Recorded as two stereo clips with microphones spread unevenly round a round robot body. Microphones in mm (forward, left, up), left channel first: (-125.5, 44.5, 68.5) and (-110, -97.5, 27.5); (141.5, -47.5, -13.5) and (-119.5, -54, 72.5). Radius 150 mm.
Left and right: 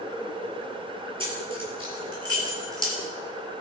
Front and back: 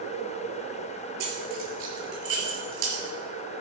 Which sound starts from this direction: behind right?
Keys jangling, at 1.2 s.